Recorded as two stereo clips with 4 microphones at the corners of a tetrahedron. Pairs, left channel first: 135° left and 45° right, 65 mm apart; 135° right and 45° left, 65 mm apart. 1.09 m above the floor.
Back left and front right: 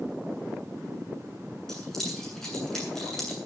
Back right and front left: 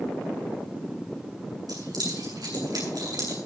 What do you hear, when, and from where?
1.7 s keys jangling: 55° left, 8.5 m